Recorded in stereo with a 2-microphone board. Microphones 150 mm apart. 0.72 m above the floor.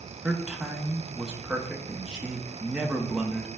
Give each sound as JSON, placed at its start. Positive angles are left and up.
{"t": 0.2, "sound": "a man speaking", "side_deg": -5, "distance_m": 0.6}